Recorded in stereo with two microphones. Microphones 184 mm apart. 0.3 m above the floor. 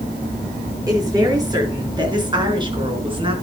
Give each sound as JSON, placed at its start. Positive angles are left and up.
{"t": 0.9, "sound": "a woman speaking", "side_deg": -20, "distance_m": 5.5}